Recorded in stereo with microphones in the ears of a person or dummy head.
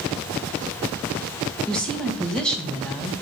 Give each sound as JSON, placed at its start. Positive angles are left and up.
{"t": 1.7, "sound": "a woman speaking", "side_deg": 5, "distance_m": 2.0}